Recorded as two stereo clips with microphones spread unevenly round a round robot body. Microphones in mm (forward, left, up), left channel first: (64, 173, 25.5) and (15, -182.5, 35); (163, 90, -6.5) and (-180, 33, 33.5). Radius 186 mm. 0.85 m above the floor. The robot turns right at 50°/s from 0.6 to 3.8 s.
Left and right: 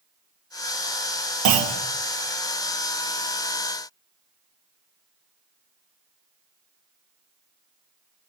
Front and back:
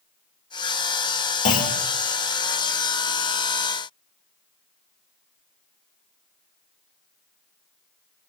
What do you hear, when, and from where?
1.4 s a clunk: 65° right, 1.6 m; by 1.8 s 45° right, 1.6 m